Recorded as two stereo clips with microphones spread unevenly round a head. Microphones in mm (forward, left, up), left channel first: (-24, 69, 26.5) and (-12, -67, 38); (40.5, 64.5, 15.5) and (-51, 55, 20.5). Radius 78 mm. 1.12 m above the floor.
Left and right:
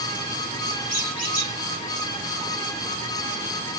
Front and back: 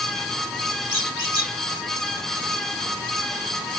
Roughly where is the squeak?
Ahead left.